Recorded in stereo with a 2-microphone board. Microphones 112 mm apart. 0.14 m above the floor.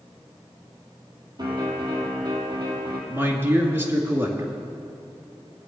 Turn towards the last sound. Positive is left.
turn(degrees=-20)  # may be behind; listen again after turning